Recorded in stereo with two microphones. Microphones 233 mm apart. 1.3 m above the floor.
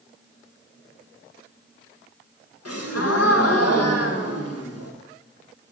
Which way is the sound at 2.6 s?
80° left.